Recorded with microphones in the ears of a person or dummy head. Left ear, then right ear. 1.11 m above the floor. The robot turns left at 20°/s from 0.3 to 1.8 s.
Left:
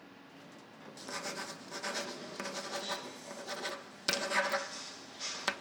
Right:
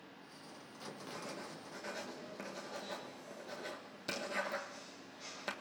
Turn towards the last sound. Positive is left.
turn(degrees=40)  # may be behind; listen again after turning